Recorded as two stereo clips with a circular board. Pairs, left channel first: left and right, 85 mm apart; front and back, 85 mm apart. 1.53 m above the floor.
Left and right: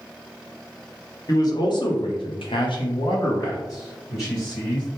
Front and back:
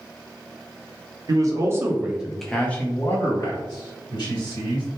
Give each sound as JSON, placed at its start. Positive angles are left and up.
{"t": 1.3, "sound": "a man speaking", "azimuth_deg": 135, "distance_m": 0.8}